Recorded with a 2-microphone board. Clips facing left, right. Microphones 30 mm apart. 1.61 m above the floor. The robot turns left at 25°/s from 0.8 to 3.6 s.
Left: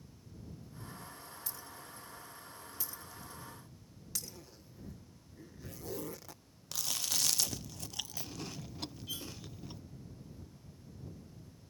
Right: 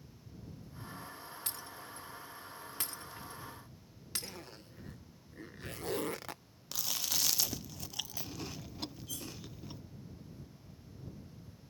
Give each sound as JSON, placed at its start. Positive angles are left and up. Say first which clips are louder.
{"t": 1.5, "sound": "breaking glass", "louder": "right 3 dB", "side_deg": -70}
{"t": 4.2, "sound": "a zipper", "louder": "right 4 dB", "side_deg": -70}
{"t": 6.7, "sound": "chewing", "louder": "even", "side_deg": -5}
{"t": 9.1, "sound": "cutlery clinking", "louder": "left 2 dB", "side_deg": 35}